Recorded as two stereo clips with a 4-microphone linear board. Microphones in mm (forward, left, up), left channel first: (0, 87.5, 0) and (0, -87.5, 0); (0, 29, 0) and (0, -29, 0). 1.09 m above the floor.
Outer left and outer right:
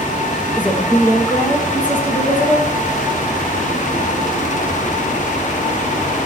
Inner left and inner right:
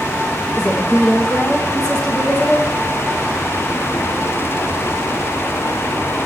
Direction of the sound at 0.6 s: 10° left (ahead or behind).